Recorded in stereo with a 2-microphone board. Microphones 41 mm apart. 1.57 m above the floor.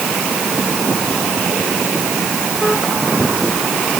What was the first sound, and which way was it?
Only background noise.